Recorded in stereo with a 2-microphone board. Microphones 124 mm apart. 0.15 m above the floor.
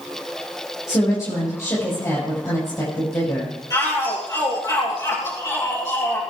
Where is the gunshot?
I don't hear a gunshot.